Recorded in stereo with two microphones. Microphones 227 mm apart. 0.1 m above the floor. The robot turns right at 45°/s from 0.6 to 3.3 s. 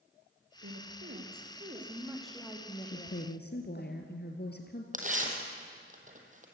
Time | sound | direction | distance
0.6 | a woman speaking | 75° right | 4 m
2.9 | a woman speaking | 35° left (ahead or behind) | 1.7 m
4.9 | tearing paper | 35° right (ahead or behind) | 3 m